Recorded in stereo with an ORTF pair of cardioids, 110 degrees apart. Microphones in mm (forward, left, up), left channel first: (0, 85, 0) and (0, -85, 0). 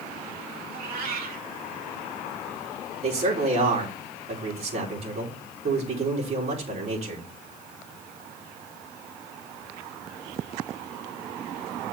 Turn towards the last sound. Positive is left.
turn(degrees=-40)